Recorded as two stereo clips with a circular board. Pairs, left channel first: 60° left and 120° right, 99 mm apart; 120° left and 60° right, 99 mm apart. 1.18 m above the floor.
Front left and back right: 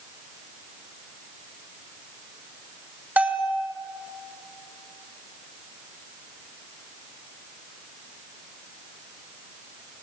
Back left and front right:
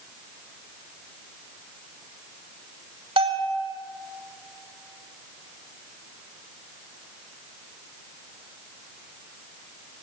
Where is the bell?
45° right, 2 m.